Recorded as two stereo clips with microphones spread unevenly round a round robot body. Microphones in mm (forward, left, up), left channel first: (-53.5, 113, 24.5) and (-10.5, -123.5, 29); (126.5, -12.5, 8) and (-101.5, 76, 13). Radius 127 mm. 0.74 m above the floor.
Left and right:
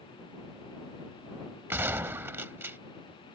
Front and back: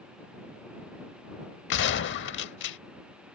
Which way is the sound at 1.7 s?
Straight ahead.